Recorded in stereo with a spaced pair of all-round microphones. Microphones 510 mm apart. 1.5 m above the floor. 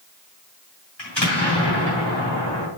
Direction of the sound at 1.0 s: 65° left (ahead or behind).